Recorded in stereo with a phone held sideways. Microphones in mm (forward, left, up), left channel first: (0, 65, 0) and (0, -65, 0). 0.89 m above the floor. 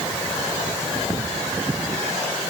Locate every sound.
Only background noise.